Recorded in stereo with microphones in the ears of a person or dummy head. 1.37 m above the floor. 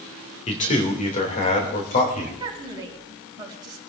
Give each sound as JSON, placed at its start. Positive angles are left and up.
{"t": 0.5, "sound": "a man speaking", "side_deg": 35, "distance_m": 1.9}
{"t": 2.4, "sound": "a woman speaking", "side_deg": -20, "distance_m": 4.0}